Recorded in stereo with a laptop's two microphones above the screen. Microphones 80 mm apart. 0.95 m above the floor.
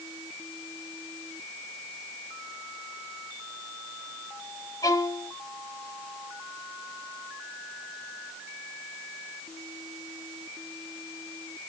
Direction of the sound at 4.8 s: 45° left (ahead or behind).